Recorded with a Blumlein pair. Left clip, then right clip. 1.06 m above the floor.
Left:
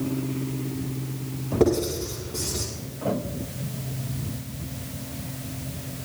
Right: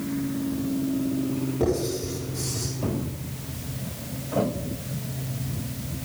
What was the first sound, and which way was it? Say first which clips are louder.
Writing: left 4 dB; 70° left.